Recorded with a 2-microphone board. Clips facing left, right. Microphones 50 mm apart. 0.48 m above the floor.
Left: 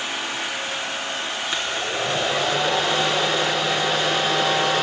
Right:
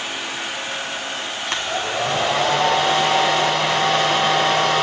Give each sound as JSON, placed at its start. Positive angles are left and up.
{"t": 1.5, "sound": "a hair dryer", "side_deg": -65, "distance_m": 3.0}